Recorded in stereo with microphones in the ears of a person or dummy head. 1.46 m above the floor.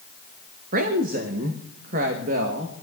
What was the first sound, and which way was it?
A woman speaking, 50° right (ahead or behind).